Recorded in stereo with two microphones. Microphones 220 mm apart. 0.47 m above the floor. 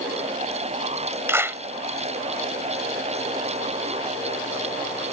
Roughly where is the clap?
Centre.